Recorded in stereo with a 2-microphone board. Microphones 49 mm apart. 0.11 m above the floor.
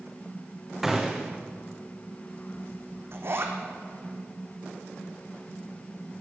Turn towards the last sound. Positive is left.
turn(degrees=-55)  # may be behind; listen again after turning